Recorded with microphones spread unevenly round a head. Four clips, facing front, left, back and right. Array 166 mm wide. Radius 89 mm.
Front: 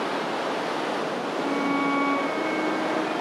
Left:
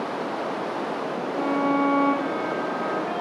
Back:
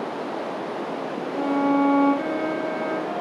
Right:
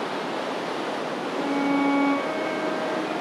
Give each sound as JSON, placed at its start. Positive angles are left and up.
{"t": 1.3, "sound": "a violin", "azimuth_deg": -175, "distance_m": 1.1}